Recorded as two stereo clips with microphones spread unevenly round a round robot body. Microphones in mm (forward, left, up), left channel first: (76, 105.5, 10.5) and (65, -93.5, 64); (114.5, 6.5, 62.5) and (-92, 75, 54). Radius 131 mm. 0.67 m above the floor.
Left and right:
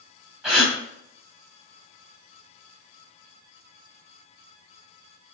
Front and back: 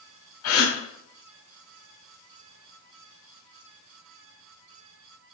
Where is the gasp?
5° right, 3 m.